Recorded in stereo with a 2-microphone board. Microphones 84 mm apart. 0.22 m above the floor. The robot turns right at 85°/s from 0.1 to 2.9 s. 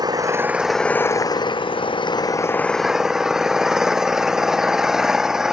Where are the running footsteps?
I don't hear running footsteps.